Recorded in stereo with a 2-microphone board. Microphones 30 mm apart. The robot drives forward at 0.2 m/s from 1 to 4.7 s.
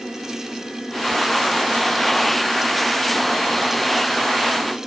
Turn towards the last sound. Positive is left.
No sound to turn to.